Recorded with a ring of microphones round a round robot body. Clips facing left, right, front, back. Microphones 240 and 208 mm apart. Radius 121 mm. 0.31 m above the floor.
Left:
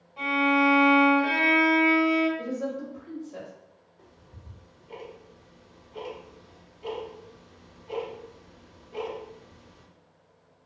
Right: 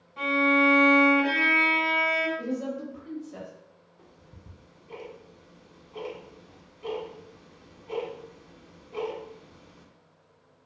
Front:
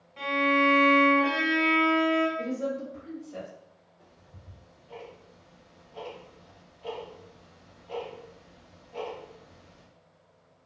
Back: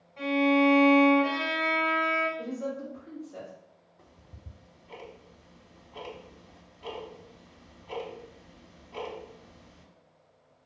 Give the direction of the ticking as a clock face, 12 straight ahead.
6 o'clock.